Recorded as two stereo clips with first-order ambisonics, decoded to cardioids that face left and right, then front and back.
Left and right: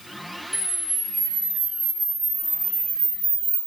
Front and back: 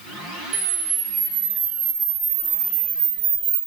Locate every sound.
0.5 s a camera shutter: 170° right, 1.6 m